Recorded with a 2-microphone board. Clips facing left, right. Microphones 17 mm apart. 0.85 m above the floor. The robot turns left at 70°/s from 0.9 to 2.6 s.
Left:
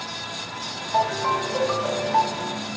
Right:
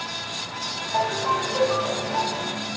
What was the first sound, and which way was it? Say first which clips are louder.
A ringtone: left 1 dB; 175° left.